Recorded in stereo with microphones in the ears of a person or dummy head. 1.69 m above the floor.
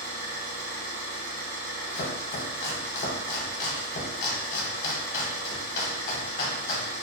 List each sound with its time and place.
0.0 s an engine running: 70° right (ahead or behind), 1.3 m
1.9 s chopping: 45° left (ahead or behind), 0.7 m